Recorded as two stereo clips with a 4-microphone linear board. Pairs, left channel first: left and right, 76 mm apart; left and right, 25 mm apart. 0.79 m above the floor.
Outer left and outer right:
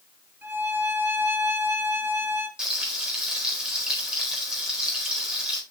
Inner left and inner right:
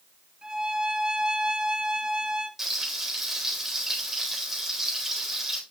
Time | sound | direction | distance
0.4 | a violin | 30° right (ahead or behind) | 1.7 m
2.6 | frying | 10° right (ahead or behind) | 4 m